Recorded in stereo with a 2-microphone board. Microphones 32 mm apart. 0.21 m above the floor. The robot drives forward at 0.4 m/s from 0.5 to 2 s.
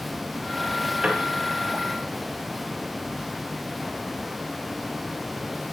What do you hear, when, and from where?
1.0 s a piano: 25° right (ahead or behind), 2 m